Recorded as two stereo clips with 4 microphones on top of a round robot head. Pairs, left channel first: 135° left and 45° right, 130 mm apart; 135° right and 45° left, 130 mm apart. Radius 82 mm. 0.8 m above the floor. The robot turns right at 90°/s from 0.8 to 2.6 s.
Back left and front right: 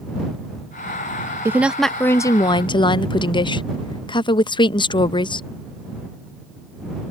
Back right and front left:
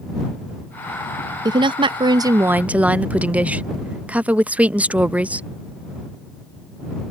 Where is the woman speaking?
15° left; by 5.5 s 115° left.